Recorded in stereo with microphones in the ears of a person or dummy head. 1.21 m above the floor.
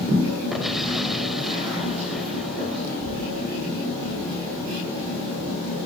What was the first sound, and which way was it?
An explosion, 5° left (ahead or behind).